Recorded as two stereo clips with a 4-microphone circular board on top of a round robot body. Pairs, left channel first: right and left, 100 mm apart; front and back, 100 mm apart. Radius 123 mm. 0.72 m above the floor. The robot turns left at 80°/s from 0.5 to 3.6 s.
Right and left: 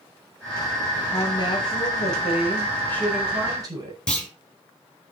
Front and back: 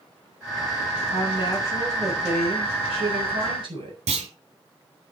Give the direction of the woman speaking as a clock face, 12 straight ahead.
1 o'clock.